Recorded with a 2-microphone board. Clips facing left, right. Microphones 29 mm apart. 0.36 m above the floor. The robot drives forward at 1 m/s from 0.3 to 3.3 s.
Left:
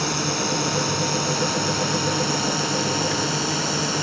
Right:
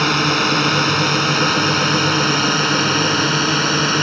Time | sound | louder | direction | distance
0.0 | a drone | right 8 dB | 50° right (ahead or behind) | ?